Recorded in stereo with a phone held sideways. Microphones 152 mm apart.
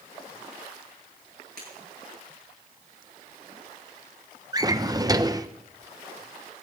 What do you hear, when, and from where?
1.6 s breaking glass: 75° right (ahead or behind), 9.5 m
4.5 s a drawer: 25° right (ahead or behind), 0.6 m